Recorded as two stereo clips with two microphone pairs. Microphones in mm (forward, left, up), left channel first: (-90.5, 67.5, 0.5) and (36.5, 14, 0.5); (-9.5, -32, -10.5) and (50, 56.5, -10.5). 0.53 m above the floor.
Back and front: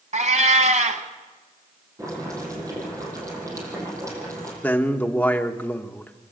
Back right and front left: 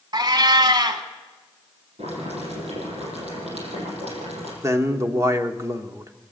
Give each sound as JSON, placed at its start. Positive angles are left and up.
{"t": 0.1, "sound": "a cat meowing", "azimuth_deg": 10, "distance_m": 1.4}
{"t": 2.0, "sound": "boiling", "azimuth_deg": 45, "distance_m": 6.5}
{"t": 4.6, "sound": "a man speaking", "azimuth_deg": 90, "distance_m": 1.1}